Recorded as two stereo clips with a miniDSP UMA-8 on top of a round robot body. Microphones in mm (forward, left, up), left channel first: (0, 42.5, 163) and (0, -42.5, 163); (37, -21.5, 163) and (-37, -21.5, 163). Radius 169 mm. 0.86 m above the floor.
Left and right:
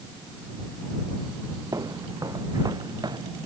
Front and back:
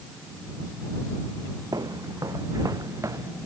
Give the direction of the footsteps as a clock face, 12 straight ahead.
5 o'clock.